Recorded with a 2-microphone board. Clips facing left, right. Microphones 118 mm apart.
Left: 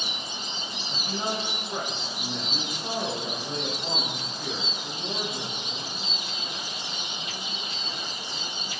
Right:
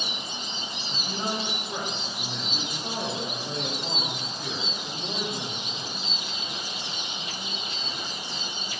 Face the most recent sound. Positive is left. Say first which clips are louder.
# left 1 dB
turn(degrees=0)  # may be behind; listen again after turning